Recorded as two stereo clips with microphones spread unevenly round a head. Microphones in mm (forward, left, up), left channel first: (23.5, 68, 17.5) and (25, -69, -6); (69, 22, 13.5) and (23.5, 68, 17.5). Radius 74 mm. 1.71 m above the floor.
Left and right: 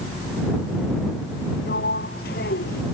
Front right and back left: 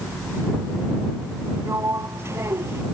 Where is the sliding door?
85° left.